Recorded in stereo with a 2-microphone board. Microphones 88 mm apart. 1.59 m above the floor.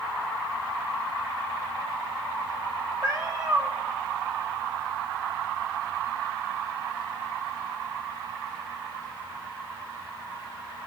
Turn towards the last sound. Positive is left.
turn(degrees=-50)  # may be behind; listen again after turning